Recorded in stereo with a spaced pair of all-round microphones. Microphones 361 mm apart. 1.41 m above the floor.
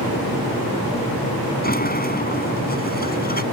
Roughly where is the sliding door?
Left.